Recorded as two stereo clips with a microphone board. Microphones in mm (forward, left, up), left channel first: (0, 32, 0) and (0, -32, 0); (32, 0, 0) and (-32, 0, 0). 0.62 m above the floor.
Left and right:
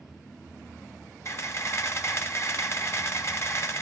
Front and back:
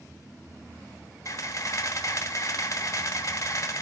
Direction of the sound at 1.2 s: 45° left.